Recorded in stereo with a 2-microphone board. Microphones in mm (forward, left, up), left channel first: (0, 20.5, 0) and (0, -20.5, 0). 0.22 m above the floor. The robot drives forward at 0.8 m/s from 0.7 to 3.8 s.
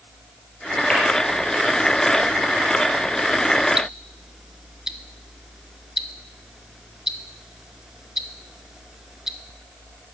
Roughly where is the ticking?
Centre.